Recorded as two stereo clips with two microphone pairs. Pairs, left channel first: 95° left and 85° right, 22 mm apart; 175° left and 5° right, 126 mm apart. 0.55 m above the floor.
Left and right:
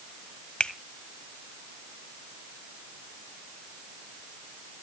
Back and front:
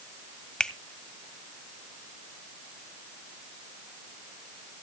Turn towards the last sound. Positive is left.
turn(degrees=95)